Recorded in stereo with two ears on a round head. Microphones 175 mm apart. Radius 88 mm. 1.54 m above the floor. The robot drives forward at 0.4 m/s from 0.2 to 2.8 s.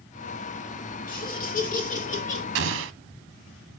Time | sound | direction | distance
1.1 | laughter | 50° left (ahead or behind) | 2.5 m
2.5 | an explosion | 65° right (ahead or behind) | 0.7 m